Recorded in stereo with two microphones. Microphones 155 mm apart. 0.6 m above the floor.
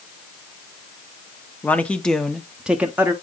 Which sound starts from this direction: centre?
A man speaking, at 1.6 s.